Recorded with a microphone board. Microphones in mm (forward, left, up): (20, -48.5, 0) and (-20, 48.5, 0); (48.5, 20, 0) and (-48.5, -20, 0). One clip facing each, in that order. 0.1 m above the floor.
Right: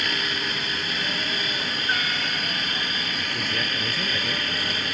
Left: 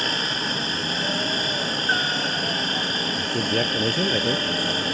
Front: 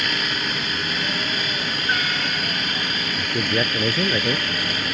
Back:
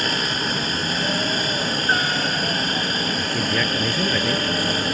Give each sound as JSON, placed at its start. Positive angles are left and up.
{"t": 0.0, "sound": "a helicopter", "azimuth_deg": 160}
{"t": 3.1, "sound": "a man speaking", "azimuth_deg": 85}